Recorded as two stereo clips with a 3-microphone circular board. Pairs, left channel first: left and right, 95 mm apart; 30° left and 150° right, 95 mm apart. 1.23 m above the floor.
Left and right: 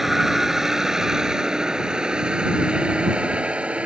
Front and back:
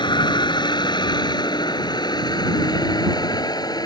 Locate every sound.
0.0 s a vehicle: 5° right; by 3.9 s 10° right